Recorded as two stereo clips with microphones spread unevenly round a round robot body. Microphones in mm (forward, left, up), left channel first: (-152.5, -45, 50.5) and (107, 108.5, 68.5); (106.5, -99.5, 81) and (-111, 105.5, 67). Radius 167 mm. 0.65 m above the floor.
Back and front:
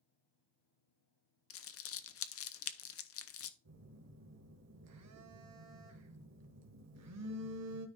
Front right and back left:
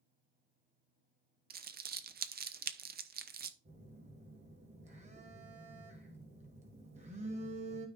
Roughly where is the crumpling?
Behind.